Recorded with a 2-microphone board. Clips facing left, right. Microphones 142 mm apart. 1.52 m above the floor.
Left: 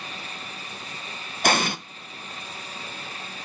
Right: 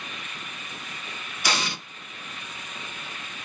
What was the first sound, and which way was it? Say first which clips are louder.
An explosion: left 6 dB; 50° left (ahead or behind).